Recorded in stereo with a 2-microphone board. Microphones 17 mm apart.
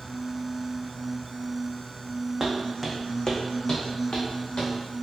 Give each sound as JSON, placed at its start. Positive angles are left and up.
{"t": 2.4, "sound": "footsteps", "side_deg": -30, "distance_m": 0.7}